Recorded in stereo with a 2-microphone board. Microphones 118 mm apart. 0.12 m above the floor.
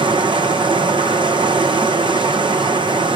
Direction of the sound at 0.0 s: 40° right (ahead or behind).